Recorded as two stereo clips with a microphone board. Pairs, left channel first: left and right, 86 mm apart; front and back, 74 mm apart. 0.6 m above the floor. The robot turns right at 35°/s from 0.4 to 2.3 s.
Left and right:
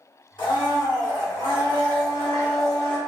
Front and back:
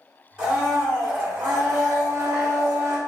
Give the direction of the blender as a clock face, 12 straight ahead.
9 o'clock.